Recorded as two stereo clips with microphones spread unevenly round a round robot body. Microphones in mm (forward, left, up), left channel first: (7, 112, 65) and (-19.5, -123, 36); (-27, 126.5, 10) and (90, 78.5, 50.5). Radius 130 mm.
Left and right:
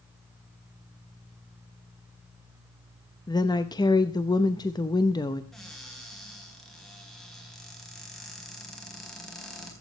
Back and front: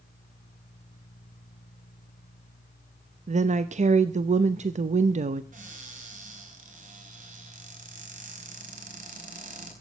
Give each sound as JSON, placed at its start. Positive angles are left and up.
{"t": 3.3, "sound": "a woman speaking", "azimuth_deg": 10, "distance_m": 0.8}
{"t": 5.5, "sound": "a cupboard door", "azimuth_deg": -5, "distance_m": 4.0}